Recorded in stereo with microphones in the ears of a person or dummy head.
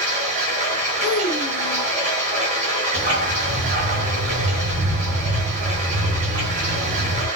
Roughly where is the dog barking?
Right.